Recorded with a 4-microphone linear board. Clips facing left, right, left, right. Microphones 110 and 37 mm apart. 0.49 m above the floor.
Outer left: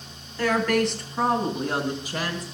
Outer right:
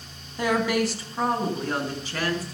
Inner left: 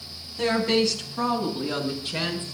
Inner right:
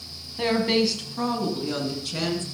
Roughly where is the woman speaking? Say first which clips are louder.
Outer left 1 dB, even; centre.